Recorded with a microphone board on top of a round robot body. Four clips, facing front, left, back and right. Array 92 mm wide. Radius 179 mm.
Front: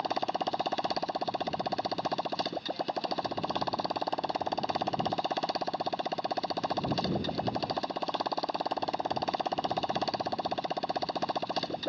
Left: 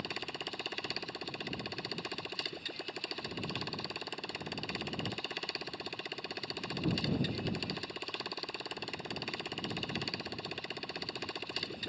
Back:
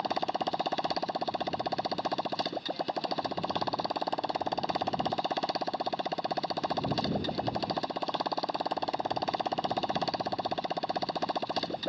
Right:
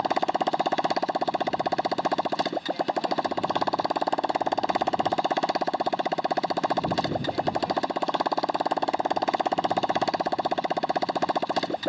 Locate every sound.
0.0 s a motorcycle: 85° right